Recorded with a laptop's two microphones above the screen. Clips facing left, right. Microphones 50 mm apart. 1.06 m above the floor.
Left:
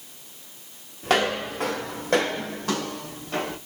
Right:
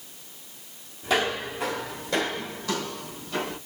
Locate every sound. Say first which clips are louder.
1.0 s footsteps: left 3 dB; 60° left (ahead or behind), 2.5 m; by 3.6 s 45° left (ahead or behind), 3.5 m